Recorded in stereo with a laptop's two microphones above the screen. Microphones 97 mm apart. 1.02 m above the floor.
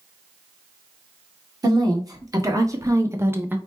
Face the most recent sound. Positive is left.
turn(degrees=-20)  # may be behind; listen again after turning